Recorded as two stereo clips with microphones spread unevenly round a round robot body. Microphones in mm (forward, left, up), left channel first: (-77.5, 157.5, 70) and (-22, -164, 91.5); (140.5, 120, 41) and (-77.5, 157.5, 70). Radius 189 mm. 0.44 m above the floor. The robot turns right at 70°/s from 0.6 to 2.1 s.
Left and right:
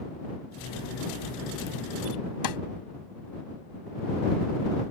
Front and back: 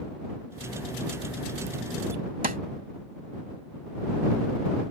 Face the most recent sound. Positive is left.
turn(degrees=115)